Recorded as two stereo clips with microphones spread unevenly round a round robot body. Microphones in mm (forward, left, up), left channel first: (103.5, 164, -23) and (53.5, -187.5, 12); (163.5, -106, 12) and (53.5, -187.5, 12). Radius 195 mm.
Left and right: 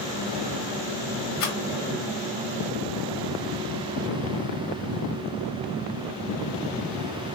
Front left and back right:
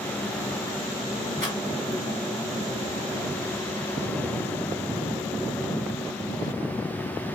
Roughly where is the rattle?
Left.